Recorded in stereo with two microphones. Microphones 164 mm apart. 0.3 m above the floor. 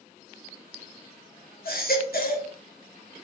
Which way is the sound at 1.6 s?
65° left (ahead or behind).